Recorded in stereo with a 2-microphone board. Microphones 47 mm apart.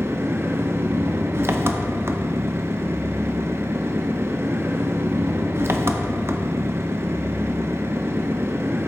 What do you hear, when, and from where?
0.0 s an engine running: 60° right (ahead or behind), 0.8 m